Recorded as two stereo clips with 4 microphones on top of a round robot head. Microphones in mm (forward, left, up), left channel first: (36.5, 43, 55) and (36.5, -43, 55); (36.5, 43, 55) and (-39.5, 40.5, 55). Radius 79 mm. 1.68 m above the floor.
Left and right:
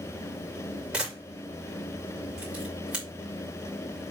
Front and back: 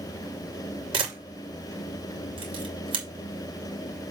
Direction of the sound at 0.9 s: 170° right.